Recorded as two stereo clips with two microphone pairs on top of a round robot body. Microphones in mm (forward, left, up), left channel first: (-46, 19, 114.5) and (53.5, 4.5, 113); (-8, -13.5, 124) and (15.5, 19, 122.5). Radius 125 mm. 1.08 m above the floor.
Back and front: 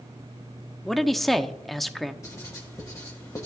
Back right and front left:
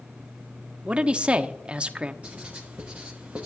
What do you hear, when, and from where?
0.8 s a man speaking: 85° left, 0.8 m
2.2 s writing: 110° left, 1.5 m